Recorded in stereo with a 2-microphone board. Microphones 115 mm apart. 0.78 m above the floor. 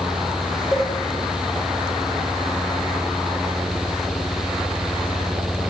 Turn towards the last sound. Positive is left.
turn(degrees=30)  # may be behind; listen again after turning